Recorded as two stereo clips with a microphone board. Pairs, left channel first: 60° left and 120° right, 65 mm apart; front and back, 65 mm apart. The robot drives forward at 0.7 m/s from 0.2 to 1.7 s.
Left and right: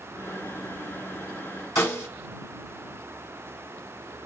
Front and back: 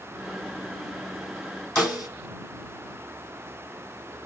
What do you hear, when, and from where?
1.8 s a snare drum: 105° left, 1.5 m